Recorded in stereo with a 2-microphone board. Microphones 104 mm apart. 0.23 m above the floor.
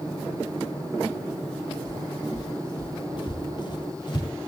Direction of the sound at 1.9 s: 40° left (ahead or behind).